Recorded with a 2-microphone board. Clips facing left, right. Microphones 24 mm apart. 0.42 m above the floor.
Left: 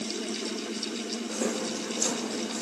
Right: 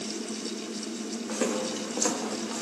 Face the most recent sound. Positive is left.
turn(degrees=-80)